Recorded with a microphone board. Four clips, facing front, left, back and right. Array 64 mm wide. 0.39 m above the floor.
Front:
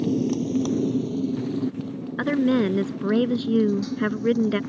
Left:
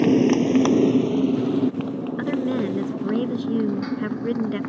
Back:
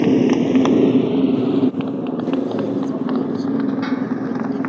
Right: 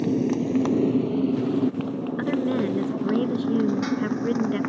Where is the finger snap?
I don't hear a finger snap.